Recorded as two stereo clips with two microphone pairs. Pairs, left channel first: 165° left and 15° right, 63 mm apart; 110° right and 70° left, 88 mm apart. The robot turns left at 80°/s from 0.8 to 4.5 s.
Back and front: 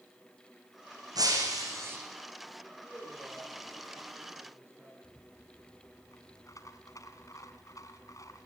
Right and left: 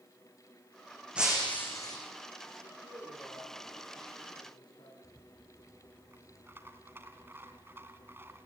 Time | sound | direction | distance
1.1 | breaking glass | 5° right | 6 m
2.6 | a man speaking | 75° left | 8 m
5.0 | a rattle | 135° left | 2.5 m